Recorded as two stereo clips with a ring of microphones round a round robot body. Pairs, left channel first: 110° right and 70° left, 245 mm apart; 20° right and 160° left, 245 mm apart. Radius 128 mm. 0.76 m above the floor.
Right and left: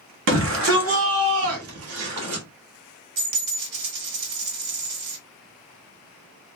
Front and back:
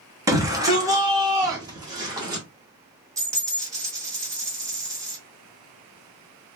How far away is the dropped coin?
About 1.6 m.